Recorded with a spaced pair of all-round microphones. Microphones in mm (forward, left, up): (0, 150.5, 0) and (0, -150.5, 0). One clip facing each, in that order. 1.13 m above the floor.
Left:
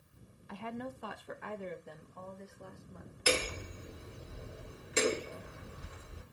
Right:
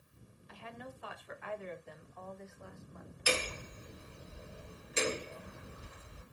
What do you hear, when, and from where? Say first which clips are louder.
0.5 s a woman speaking: left 8 dB; 65° left (ahead or behind), 0.5 m; by 3.2 s 40° left (ahead or behind), 1.9 m
3.3 s hammering: left 3 dB; 70° left (ahead or behind), 3 m